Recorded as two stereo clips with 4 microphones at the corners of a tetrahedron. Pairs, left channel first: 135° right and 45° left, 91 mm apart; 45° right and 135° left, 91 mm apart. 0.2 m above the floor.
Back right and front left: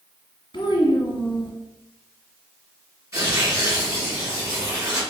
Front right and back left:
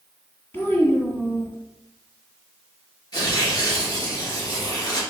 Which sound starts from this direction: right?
A child speaking, at 0.5 s.